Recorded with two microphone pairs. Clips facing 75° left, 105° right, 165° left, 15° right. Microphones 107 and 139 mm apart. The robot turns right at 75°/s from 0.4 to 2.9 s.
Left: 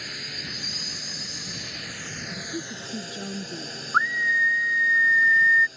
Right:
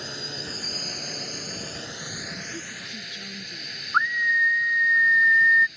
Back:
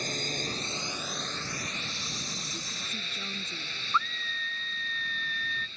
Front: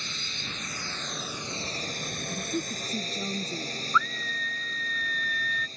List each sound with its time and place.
0.0 s a drone: 160° right; by 5.8 s 25° left
2.3 s a woman speaking: 10° right; by 3.8 s 40° left
3.9 s a scream: 160° left